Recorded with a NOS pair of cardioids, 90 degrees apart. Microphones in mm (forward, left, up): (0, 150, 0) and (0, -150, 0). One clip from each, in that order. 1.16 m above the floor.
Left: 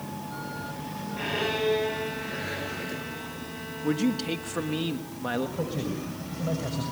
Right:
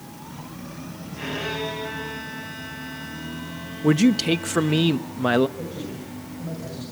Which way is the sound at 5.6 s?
45° left.